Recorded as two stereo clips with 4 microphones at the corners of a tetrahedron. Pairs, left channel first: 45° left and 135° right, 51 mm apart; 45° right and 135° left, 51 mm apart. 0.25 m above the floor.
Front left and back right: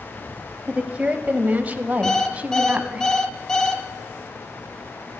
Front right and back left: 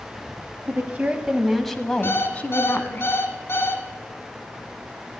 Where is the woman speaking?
165° left, 1.2 m; by 3.0 s 75° right, 1.7 m.